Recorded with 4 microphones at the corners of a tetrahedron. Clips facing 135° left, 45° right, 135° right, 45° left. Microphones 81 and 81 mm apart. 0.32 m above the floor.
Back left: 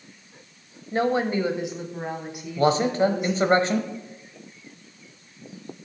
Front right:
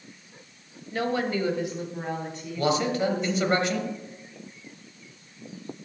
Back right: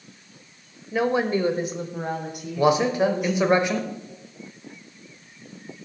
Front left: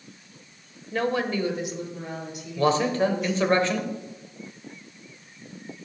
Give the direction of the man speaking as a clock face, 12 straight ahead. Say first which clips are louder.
Back left 4 dB, back right 2 dB; 7 o'clock.